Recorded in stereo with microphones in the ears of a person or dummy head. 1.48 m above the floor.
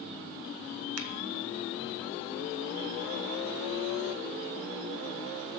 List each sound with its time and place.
1.0 s a finger snap: 85° right, 0.9 m